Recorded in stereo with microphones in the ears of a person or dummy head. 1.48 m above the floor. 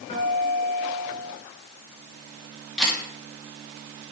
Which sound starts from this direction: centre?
A camera shutter, at 2.8 s.